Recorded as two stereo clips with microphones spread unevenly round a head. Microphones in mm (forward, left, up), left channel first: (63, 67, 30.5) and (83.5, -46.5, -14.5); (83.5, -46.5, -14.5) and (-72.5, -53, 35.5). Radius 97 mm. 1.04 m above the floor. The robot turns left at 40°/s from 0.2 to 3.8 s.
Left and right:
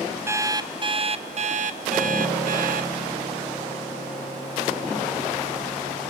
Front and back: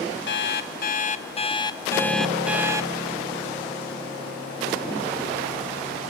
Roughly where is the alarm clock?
Ahead.